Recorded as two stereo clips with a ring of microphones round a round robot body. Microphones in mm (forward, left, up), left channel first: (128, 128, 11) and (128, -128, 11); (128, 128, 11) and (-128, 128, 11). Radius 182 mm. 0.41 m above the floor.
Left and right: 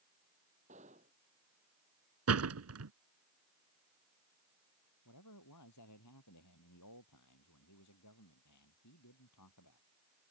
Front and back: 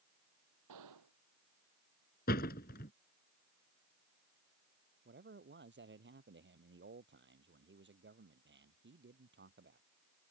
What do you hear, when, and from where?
0.7 s a gunshot: 165° right
2.3 s a door slam: 65° right
5.0 s a man speaking: 135° left